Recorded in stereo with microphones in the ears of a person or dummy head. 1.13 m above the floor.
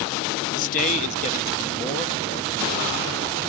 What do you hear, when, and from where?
0.5 s a man speaking: 45° left (ahead or behind), 1.2 m; by 2.8 s 30° left (ahead or behind), 2.5 m